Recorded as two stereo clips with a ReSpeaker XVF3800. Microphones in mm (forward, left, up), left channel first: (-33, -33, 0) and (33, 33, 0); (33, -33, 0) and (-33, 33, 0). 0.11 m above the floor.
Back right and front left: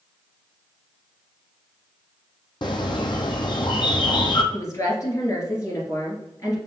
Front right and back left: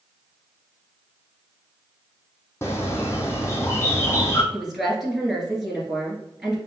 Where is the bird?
105° right, 0.7 m.